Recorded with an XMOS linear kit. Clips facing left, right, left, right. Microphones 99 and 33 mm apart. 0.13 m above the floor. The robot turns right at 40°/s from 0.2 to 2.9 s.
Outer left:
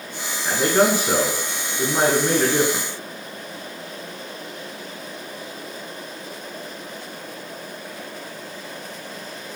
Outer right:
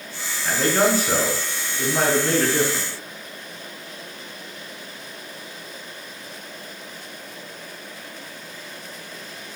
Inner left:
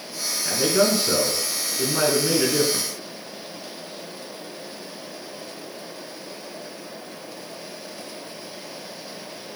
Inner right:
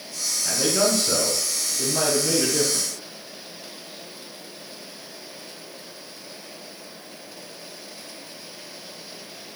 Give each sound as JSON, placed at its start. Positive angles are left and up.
{"t": 0.5, "sound": "a man speaking", "side_deg": 10, "distance_m": 1.2}